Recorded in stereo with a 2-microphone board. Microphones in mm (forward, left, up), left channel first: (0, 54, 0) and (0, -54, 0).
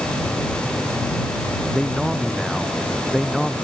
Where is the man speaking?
Centre (ahead or behind).